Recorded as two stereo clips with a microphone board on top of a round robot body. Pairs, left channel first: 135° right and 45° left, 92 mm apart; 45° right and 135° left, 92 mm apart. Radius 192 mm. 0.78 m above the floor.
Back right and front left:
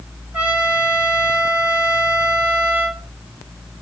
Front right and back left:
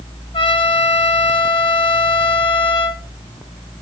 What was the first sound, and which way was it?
A trumpet, 30° right.